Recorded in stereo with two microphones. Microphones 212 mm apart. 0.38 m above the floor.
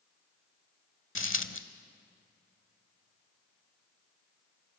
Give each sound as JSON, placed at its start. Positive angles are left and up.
{"t": 1.1, "sound": "a dropped coin", "side_deg": 70, "distance_m": 0.9}